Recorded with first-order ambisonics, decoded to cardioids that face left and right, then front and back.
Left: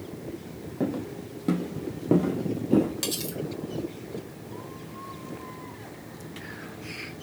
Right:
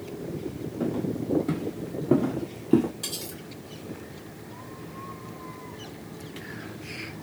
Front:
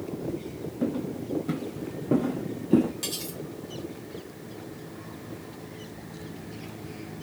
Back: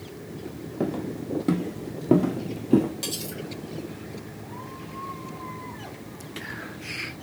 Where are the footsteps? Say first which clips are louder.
Right 1 dB, back 2 dB; 145° left, 1.8 m; by 2.9 s 70° right, 1.0 m.